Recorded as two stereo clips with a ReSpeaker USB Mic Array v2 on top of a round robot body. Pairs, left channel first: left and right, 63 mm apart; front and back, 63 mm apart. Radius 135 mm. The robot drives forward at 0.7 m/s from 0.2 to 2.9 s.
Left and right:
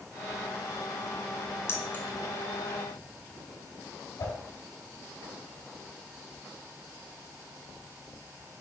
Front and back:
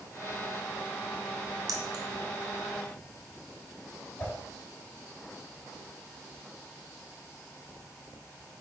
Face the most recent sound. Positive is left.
turn(degrees=80)